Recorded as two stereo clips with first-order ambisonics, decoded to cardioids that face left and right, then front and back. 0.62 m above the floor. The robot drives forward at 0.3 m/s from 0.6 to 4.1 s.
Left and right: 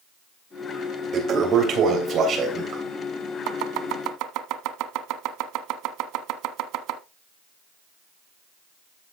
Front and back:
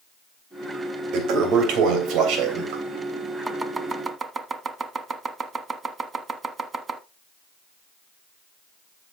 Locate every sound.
1.1 s a toilet flushing: 150° right, 3 m; by 2.8 s 155° right, 3 m
3.5 s chopping: 100° right, 1.0 m; by 7.0 s 110° right, 1.1 m